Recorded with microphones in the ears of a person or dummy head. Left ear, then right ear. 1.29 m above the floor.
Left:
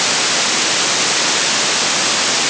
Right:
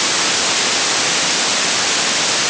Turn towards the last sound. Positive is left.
No sound to turn to.